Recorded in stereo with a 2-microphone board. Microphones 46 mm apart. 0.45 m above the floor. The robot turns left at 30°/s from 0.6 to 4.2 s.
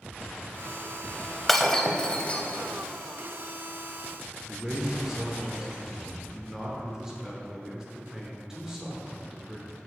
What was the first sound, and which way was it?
Breaking glass, centre (ahead or behind).